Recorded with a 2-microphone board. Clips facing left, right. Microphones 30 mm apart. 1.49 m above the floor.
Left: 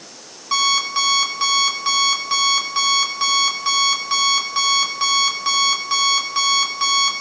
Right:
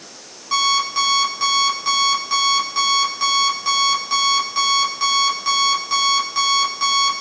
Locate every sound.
0.5 s an alarm clock: 20° left (ahead or behind), 4.5 m